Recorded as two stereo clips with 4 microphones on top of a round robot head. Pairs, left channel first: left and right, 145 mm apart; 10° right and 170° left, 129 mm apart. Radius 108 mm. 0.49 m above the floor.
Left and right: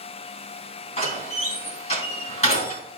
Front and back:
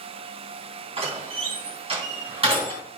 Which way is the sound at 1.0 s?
130° left.